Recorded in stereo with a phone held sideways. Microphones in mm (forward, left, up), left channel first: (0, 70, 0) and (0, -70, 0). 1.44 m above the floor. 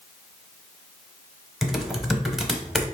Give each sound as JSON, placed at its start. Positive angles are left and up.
{"t": 1.6, "sound": "typing on a keyboard", "side_deg": 0, "distance_m": 0.7}